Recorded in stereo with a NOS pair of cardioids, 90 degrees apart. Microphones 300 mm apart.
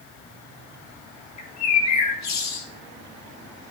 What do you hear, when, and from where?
1.4 s a bird: 60° left, 2 m